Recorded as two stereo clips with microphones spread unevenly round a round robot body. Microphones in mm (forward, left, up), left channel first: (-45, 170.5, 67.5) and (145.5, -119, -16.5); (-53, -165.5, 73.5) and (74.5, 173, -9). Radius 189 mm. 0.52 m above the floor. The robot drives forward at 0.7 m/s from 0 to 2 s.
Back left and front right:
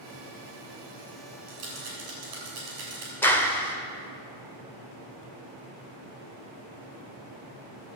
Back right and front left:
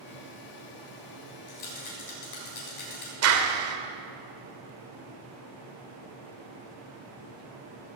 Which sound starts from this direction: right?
A rattle, at 1.5 s.